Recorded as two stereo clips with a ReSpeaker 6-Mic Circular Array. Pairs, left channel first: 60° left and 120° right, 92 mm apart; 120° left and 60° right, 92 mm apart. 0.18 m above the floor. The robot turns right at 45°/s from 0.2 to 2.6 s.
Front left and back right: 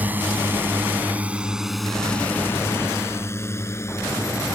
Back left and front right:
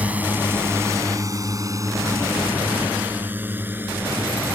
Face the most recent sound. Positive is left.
turn(degrees=5)